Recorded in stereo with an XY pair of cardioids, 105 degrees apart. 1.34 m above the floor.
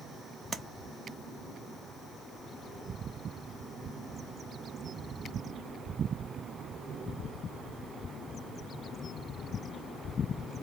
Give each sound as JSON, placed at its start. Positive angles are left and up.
{"t": 0.5, "sound": "tapping", "azimuth_deg": -30, "distance_m": 0.5}